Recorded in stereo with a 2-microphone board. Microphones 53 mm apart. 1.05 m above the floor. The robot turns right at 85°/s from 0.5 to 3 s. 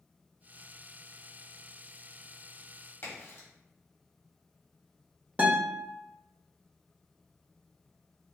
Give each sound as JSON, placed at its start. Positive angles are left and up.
{"t": 3.0, "sound": "a crack", "side_deg": 55, "distance_m": 2.5}
{"t": 5.4, "sound": "a guitar", "side_deg": -30, "distance_m": 1.3}